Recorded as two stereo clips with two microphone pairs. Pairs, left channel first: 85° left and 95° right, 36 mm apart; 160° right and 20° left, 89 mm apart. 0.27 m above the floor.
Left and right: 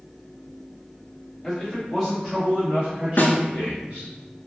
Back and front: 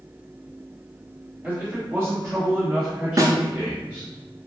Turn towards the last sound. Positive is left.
turn(degrees=60)